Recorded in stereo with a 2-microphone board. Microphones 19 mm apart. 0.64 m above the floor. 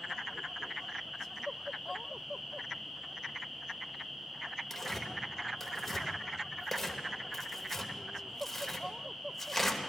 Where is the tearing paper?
10° left (ahead or behind), 1.2 m.